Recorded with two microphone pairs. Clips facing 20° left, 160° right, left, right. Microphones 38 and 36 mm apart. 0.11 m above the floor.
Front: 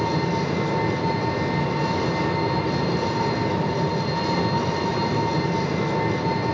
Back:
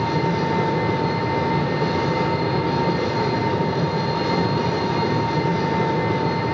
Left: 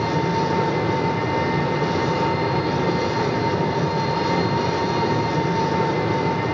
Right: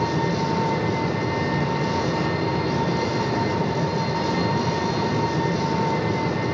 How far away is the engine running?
About 8 m.